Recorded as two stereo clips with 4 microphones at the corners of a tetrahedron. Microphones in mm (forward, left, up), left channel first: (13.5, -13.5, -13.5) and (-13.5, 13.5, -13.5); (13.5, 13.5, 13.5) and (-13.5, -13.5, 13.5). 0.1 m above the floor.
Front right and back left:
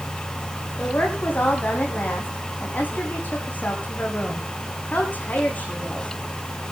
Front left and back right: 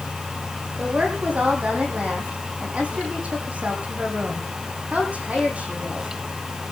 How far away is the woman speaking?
About 7 m.